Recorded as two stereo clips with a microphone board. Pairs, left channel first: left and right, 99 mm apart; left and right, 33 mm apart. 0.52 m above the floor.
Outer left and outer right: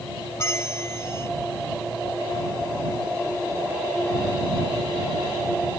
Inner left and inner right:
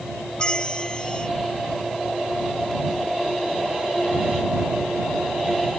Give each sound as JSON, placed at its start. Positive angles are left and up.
{"t": 0.4, "sound": "a bell", "side_deg": 30}